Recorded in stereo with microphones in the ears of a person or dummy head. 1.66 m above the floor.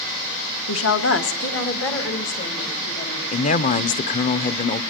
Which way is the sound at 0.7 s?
85° left.